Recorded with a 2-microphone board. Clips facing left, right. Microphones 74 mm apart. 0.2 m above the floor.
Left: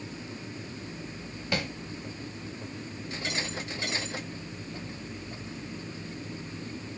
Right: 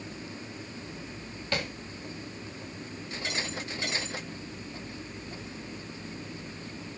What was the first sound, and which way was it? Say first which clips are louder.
Tapping: left 1 dB; 10° left (ahead or behind).